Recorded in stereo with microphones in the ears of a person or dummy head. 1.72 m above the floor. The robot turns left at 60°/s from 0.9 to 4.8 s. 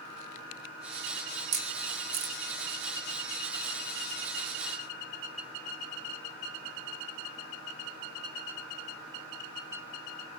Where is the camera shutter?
60° right (ahead or behind), 1.3 m; by 2.4 s 45° right (ahead or behind), 1.3 m.